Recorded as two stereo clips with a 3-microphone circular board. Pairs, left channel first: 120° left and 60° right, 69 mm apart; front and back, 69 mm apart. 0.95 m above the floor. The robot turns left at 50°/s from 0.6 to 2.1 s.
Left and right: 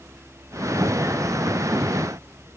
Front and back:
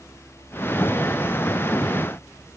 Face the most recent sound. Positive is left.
No sound to turn to.